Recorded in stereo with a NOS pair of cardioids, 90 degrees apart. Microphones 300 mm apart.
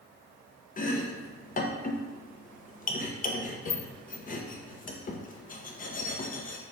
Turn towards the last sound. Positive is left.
turn(degrees=30)